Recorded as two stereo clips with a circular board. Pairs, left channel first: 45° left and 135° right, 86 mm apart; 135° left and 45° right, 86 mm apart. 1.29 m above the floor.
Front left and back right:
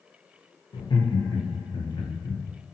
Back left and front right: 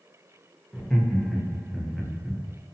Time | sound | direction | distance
0.7 | laughter | 50° left | 0.6 m